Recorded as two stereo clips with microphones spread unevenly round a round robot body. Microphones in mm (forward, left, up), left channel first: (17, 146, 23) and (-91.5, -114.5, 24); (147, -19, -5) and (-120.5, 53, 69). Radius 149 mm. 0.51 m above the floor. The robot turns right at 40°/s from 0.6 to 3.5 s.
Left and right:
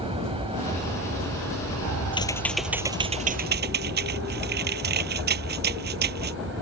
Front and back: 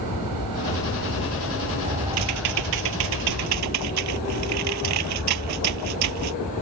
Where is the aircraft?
Straight behind; by 6.6 s 65° right.